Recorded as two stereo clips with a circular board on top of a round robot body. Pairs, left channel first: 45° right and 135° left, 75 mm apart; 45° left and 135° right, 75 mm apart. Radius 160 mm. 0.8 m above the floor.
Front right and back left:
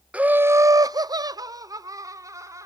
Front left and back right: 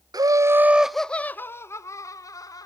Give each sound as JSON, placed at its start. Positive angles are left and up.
{"t": 0.1, "sound": "laughter", "azimuth_deg": -155, "distance_m": 0.7}